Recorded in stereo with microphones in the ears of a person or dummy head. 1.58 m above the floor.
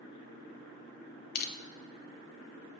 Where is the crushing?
65° left (ahead or behind), 1.2 m.